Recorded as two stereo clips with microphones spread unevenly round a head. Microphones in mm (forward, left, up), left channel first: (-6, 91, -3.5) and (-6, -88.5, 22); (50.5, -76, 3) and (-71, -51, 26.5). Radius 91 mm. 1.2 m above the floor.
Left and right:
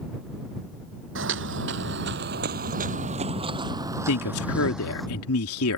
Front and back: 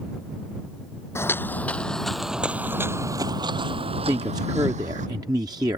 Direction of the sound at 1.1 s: 85° right.